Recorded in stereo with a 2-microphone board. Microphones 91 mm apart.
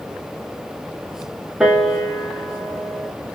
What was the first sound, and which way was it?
A piano, 5° right (ahead or behind).